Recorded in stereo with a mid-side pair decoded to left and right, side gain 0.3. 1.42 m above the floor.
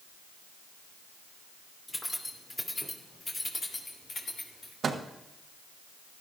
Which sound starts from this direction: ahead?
Keys jangling, at 1.9 s.